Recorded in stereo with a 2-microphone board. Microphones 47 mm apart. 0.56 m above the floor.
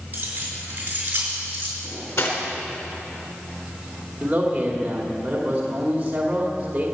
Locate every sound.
0.1 s keys jangling: 35° right (ahead or behind), 5.5 m; by 1.7 s 40° right (ahead or behind), 4.5 m
1.8 s cutlery clinking: 85° left, 3.5 m
4.2 s a man speaking: 25° right (ahead or behind), 2.5 m